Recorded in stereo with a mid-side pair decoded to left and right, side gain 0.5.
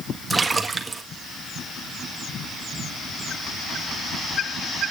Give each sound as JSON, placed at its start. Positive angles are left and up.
{"t": 0.3, "sound": "a splash", "azimuth_deg": -20, "distance_m": 1.7}